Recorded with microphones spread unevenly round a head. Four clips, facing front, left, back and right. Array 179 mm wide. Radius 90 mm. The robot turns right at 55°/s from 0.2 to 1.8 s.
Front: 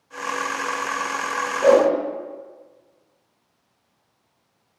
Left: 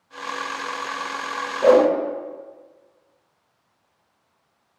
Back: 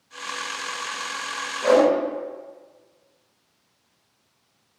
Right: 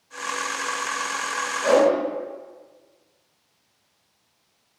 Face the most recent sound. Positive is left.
turn(degrees=65)